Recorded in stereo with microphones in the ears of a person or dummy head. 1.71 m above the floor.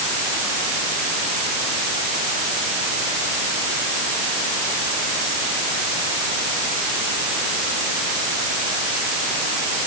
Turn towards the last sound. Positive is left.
No sound to turn to.